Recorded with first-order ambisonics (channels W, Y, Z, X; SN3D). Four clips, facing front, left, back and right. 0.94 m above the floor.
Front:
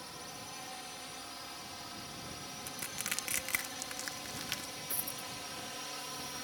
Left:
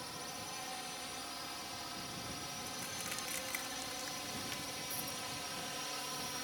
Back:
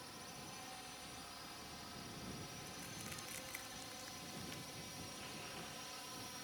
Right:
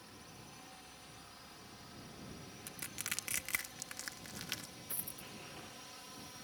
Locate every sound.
0.0 s a drone: 55° left; by 6.4 s 50° left
2.7 s crushing: 20° right
4.9 s a dropped coin: 15° right